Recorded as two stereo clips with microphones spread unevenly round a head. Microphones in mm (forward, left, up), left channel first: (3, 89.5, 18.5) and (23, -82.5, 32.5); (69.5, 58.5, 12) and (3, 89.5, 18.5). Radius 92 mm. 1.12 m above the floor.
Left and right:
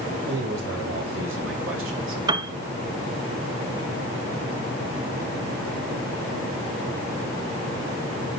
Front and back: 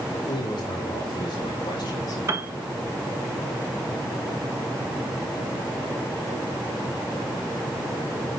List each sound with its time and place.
0.3 s a man speaking: 65° right, 4 m; by 2.2 s 75° right, 2.5 m
2.3 s a piano: 150° right, 0.6 m